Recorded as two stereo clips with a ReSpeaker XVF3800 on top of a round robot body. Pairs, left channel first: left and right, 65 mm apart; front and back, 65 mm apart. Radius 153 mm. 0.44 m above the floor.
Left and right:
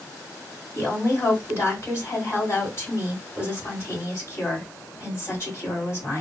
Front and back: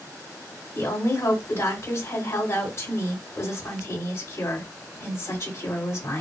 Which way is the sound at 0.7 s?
45° left.